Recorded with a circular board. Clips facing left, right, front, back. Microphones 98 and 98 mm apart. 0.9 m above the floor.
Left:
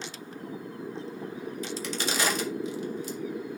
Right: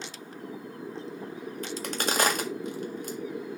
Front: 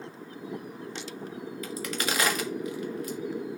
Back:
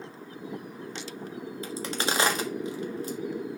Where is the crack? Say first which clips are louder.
Right 2 dB, back 2 dB; 120° right, 1.5 m.